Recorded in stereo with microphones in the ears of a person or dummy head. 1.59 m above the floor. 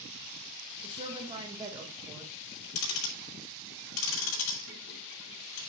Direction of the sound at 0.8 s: 30° right (ahead or behind).